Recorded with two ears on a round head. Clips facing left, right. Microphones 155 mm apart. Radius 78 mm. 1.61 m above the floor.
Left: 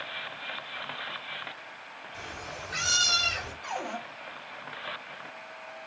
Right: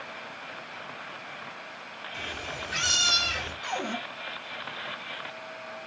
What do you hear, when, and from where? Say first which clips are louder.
2.1 s a cat meowing: right 3 dB; 40° right (ahead or behind), 1.4 m; by 3.5 s 30° right (ahead or behind), 1.6 m
3.6 s a cupboard door: right 2 dB; 50° right (ahead or behind), 1.1 m